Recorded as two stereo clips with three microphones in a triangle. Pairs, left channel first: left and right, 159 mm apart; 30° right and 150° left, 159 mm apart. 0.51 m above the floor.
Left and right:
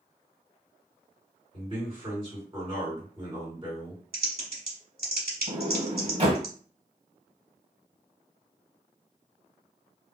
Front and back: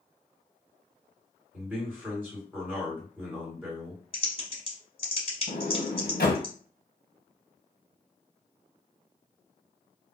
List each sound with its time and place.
1.5 s a man speaking: 135° right, 1.9 m
4.1 s typing on a keyboard: 80° right, 1.0 m
5.5 s a sliding door: 40° right, 0.7 m